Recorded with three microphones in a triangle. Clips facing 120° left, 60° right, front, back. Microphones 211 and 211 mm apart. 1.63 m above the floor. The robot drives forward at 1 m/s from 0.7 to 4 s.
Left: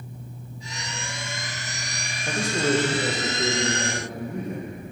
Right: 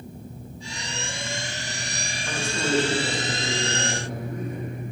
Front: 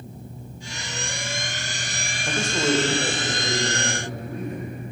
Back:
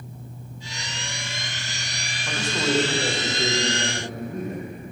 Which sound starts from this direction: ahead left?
A man speaking, at 2.3 s.